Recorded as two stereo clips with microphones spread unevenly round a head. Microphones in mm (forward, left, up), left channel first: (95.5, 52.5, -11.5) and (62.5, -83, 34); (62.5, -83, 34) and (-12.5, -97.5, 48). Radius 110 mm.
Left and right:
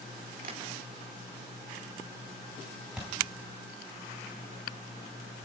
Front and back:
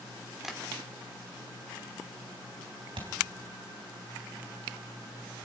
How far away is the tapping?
About 3.5 m.